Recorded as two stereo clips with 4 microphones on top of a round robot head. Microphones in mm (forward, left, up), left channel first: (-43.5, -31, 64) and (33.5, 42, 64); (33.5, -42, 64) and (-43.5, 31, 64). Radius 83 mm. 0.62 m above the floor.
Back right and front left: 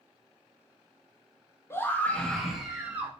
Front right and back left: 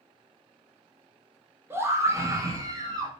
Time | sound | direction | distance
1.7 | a scream | 175° right | 1.0 m